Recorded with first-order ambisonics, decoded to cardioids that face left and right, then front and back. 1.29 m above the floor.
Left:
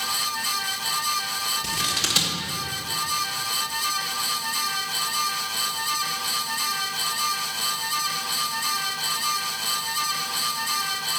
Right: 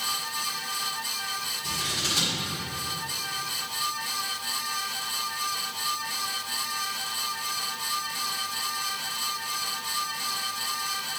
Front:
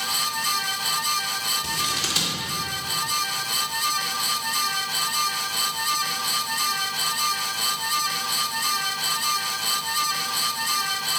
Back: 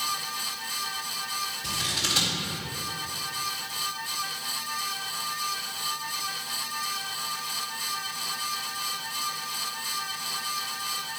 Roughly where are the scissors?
Ahead left.